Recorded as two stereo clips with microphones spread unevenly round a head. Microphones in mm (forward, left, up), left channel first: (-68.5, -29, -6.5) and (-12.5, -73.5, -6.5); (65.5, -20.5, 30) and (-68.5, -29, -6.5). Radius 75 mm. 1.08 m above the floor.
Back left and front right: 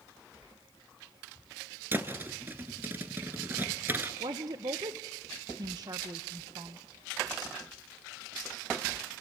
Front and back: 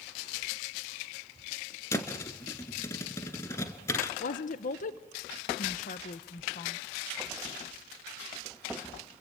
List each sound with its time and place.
1.9 s a thud: straight ahead, 1.2 m
4.2 s a woman speaking: 20° right, 0.8 m